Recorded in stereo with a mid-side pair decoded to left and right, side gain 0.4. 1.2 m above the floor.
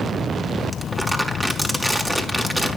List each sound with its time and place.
0.7 s crumpling: 10° right, 5 m